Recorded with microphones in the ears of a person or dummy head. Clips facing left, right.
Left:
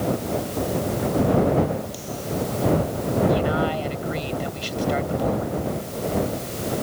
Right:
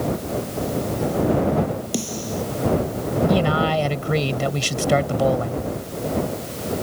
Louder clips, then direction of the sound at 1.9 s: Right 2 dB; 65° right (ahead or behind).